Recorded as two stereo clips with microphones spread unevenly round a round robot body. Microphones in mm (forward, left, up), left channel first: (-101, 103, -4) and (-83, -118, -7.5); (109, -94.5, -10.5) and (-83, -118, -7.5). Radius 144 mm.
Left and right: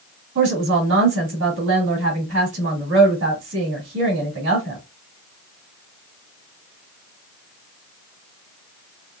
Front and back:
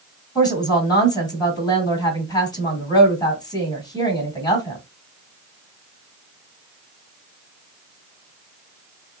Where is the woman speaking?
60° right, 2 m.